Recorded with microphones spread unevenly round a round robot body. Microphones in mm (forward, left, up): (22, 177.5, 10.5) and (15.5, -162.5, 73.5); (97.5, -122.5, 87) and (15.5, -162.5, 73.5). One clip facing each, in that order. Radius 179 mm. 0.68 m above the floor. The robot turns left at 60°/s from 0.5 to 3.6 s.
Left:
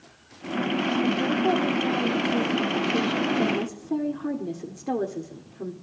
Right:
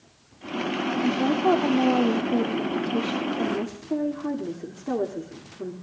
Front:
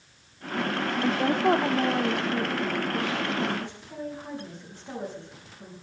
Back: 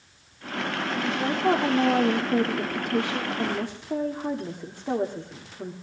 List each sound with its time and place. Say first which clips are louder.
1.0 s a woman speaking: right 5 dB, front 1 dB; 30° right, 1.4 m; by 5.7 s 175° left, 1.4 m